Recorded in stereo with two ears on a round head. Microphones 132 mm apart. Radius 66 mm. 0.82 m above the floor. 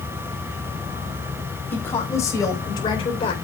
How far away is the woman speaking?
About 5 m.